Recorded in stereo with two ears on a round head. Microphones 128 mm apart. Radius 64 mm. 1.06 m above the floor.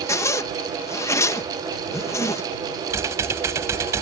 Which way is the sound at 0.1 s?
20° left (ahead or behind).